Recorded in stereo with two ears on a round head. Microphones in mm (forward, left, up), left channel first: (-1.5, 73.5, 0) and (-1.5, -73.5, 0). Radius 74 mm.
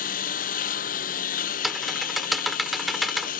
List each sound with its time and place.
0.0 s a lawn mower: 55° left (ahead or behind)
1.6 s typing on a keyboard: centre (ahead or behind)